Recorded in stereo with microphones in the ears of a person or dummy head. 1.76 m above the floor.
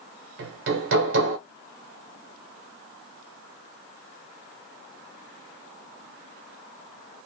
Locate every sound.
0.4 s hammering: 55° right (ahead or behind), 0.9 m